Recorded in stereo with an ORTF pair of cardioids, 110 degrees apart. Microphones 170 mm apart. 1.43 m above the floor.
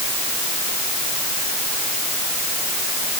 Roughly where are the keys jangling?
No keys jangling in this recording.